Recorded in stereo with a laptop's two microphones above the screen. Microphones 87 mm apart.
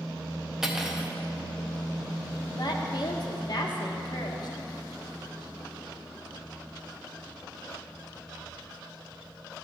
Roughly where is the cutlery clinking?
Centre.